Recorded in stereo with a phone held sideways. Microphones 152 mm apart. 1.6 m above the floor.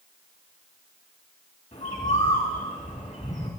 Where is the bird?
60° left (ahead or behind), 2.5 m.